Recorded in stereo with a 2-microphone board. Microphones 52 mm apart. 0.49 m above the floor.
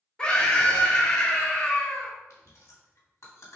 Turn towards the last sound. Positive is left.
turn(degrees=80)